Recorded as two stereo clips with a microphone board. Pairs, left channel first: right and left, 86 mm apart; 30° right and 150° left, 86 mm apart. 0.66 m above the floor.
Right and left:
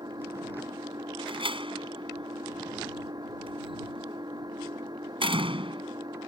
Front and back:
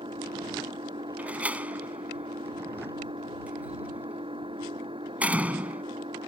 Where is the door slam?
75° left.